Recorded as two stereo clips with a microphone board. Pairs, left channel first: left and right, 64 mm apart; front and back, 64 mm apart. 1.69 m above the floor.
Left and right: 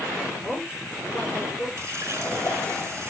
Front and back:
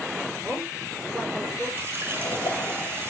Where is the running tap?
135° right, 3.5 m.